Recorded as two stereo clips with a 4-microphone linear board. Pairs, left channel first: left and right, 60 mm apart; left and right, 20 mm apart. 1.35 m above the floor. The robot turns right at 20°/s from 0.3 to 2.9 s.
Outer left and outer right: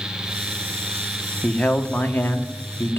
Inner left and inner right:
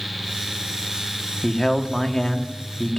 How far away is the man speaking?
About 1.3 m.